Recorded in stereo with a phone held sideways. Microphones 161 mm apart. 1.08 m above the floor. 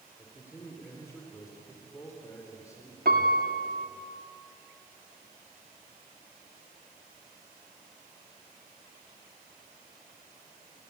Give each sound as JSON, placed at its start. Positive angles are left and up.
{"t": 0.2, "sound": "a man speaking", "side_deg": 15, "distance_m": 4.5}
{"t": 3.0, "sound": "a piano", "side_deg": -70, "distance_m": 2.5}